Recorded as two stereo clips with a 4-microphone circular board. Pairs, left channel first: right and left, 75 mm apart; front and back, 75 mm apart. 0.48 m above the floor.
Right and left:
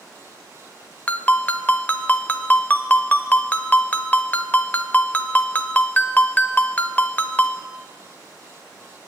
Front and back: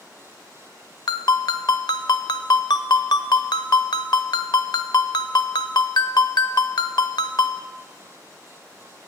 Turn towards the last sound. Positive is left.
turn(degrees=-20)